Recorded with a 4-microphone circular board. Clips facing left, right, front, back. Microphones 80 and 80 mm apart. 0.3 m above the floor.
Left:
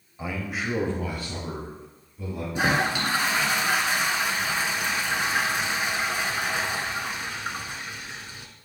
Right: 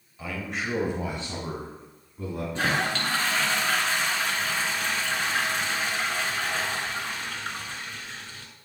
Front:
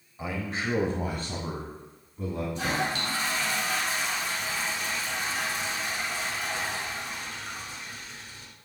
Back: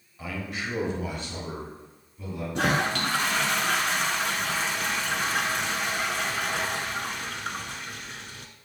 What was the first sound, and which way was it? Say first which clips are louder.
A man speaking: left 2 dB, front 2 dB; 50° left.